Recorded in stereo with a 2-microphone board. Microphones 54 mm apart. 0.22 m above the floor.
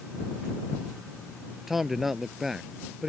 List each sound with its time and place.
1.7 s a man speaking: 5° right (ahead or behind)